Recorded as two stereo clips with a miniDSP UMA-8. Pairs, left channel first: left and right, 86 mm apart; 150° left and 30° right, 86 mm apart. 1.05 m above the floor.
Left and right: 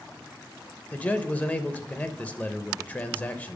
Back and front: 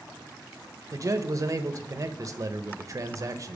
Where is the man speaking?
20° left, 0.6 m.